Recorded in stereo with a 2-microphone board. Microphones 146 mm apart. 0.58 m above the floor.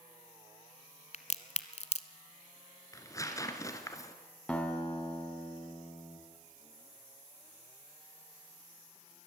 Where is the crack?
50° left (ahead or behind), 0.9 m.